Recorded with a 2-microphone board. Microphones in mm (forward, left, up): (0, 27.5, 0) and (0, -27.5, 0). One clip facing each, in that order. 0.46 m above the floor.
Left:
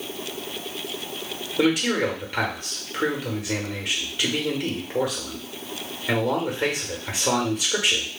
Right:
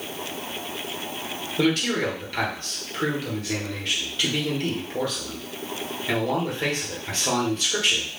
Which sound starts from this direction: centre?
A man speaking, at 1.6 s.